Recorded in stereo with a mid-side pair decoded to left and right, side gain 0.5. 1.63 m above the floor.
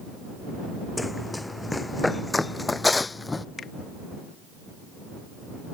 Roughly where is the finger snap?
Ahead left.